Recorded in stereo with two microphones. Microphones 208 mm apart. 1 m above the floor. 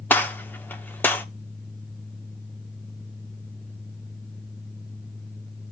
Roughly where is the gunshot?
Centre.